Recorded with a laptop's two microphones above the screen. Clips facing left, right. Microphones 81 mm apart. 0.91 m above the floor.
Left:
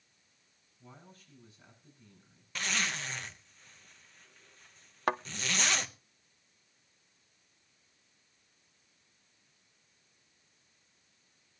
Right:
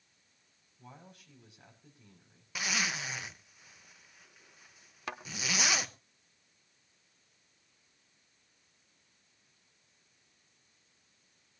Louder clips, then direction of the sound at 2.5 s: Even; 10° right (ahead or behind).